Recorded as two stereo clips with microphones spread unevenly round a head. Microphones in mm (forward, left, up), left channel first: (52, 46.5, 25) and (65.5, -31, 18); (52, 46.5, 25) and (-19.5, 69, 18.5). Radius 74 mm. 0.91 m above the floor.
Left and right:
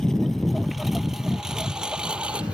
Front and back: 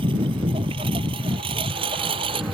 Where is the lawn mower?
175° right; by 2.5 s 165° right.